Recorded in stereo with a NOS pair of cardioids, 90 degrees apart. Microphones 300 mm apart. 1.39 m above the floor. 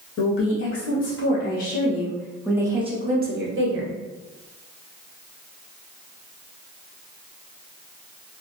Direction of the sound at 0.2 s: 55° left.